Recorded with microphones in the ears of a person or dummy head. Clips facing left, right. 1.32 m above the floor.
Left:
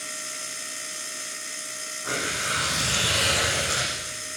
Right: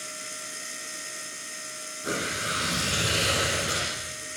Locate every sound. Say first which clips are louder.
2.0 s tearing paper: right 1 dB; 35° right (ahead or behind), 9.5 m